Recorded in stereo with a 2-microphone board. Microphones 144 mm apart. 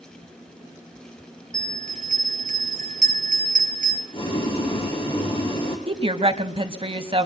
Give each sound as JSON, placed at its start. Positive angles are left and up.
{"t": 1.5, "sound": "a bell", "side_deg": -65, "distance_m": 1.9}
{"t": 4.1, "sound": "boiling", "side_deg": 40, "distance_m": 3.5}
{"t": 5.9, "sound": "a woman speaking", "side_deg": -40, "distance_m": 1.1}